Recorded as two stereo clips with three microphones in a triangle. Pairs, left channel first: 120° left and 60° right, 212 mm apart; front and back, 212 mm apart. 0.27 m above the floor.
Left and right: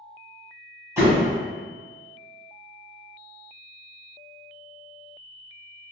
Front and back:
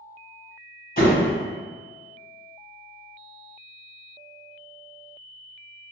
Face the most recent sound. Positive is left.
turn(degrees=10)